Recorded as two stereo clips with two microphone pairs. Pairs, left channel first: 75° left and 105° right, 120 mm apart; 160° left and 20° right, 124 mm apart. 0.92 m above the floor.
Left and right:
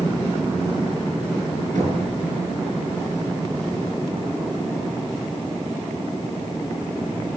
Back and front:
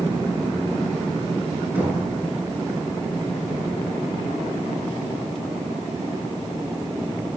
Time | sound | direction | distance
1.8 | knocking | 95° right | 9 m